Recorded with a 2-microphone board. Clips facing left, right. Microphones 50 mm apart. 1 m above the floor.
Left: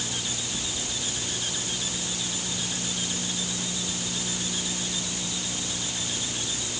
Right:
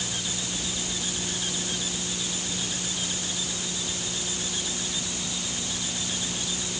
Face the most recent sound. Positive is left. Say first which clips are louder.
# even
turn(degrees=90)